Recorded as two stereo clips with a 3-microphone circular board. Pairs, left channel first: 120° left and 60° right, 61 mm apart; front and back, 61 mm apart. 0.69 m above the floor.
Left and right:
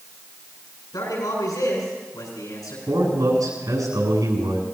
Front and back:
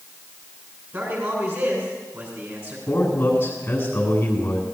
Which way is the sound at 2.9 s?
65° right.